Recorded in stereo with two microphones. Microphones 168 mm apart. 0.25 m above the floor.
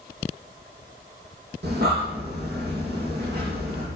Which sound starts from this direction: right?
Breathing, at 1.6 s.